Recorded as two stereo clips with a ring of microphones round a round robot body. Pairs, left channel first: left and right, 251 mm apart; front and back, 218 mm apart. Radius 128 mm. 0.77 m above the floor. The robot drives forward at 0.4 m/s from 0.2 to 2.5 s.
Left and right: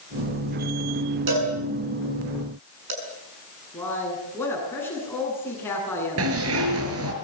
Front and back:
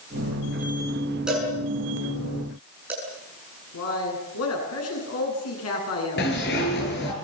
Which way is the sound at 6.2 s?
55° right.